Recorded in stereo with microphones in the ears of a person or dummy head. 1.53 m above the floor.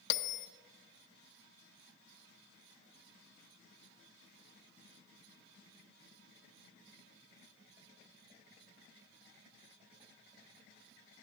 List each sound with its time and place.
0.1 s a bell: 60° left (ahead or behind), 0.5 m